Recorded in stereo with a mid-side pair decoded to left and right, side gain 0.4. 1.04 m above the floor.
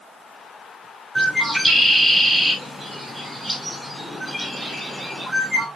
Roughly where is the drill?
I don't hear a drill.